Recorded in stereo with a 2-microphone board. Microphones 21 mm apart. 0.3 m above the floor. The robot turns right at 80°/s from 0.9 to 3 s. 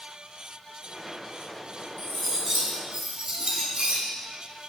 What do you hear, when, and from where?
2.0 s cutlery clinking: 160° left, 1.4 m; by 4.0 s 115° right, 1.4 m